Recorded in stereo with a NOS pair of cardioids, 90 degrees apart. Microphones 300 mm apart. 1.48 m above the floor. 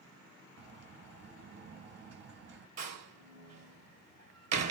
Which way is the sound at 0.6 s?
55° right.